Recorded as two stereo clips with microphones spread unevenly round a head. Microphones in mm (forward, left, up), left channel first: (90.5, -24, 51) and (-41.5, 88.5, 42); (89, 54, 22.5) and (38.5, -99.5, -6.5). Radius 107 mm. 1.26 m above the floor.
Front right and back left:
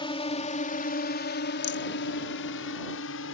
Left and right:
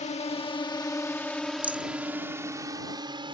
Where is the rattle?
25° right.